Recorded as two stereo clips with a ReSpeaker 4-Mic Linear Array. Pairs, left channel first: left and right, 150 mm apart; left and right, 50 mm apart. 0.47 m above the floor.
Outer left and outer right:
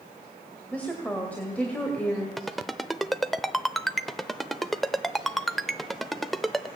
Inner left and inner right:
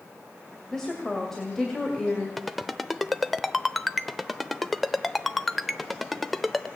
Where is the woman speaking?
10° left (ahead or behind), 2 m.